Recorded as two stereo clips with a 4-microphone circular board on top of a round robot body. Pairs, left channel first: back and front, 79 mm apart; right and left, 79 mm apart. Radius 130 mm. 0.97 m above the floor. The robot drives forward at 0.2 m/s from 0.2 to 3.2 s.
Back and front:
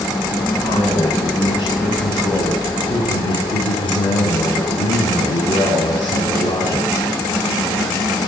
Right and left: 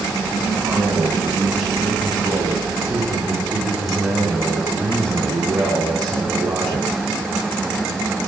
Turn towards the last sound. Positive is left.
turn(degrees=175)